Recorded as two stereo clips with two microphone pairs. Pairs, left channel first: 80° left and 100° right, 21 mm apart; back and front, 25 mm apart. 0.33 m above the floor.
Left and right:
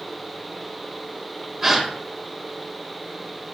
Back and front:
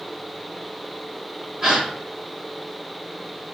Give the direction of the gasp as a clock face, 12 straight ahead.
1 o'clock.